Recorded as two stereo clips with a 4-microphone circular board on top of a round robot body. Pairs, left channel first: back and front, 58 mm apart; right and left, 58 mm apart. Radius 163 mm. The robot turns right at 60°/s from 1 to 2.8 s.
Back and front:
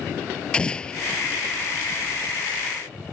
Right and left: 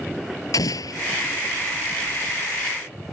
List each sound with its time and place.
0.5 s an explosion: 105° right